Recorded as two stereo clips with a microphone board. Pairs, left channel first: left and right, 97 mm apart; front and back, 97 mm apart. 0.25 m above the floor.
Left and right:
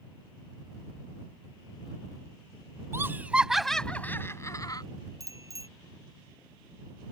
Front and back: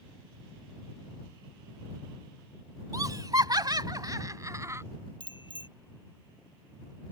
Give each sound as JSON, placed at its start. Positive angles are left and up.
{"t": 2.9, "sound": "laughter", "azimuth_deg": -145}
{"t": 5.2, "sound": "a bicycle bell", "azimuth_deg": -35}